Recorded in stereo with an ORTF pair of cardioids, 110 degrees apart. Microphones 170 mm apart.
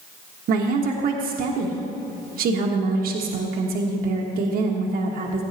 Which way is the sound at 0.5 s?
60° right.